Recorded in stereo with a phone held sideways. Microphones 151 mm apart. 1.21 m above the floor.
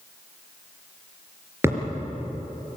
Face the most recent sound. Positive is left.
turn(degrees=-20)  # may be behind; listen again after turning